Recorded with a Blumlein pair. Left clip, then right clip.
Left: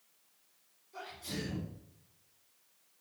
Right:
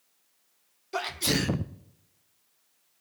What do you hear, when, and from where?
0.9 s a sneeze: 40° right, 0.8 m